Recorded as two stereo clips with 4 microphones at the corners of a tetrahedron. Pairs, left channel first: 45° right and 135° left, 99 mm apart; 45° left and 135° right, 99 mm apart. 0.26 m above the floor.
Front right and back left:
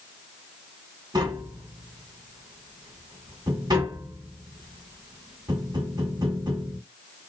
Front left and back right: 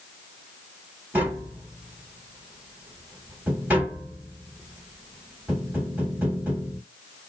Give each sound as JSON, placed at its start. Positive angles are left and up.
{"t": 1.1, "sound": "tapping", "azimuth_deg": 155, "distance_m": 1.8}